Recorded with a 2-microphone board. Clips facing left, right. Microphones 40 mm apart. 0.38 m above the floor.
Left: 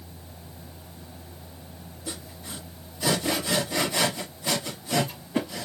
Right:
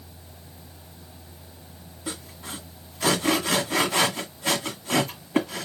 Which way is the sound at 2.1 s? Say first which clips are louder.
Right 3 dB; 75° right (ahead or behind).